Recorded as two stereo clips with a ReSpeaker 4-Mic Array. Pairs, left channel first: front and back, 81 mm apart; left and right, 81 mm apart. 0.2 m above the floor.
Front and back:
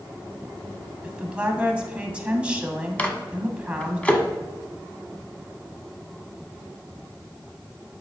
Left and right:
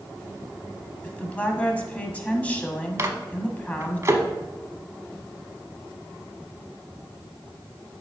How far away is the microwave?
About 1.0 m.